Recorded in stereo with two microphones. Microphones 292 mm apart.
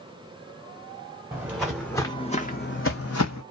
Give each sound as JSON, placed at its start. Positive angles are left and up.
{"t": 1.3, "sound": "footsteps", "side_deg": -10, "distance_m": 1.0}